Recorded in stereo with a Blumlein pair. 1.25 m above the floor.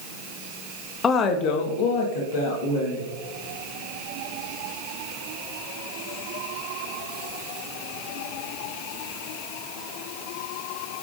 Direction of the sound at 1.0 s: 20° left.